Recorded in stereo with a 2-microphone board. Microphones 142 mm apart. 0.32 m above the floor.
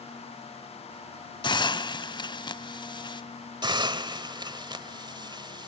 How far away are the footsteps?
No footsteps in this recording.